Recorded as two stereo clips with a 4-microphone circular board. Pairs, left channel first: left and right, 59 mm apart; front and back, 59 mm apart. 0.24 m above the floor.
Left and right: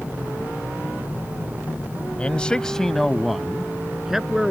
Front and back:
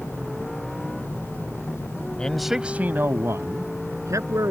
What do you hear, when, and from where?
2.2 s a man speaking: 55° left; by 4.5 s 170° right